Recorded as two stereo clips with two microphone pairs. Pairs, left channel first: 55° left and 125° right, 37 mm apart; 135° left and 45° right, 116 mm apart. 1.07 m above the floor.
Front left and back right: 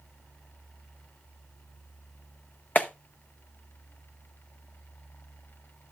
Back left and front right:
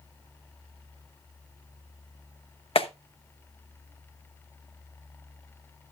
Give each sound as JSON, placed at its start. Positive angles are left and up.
{"t": 2.8, "sound": "a clap", "azimuth_deg": 100, "distance_m": 0.9}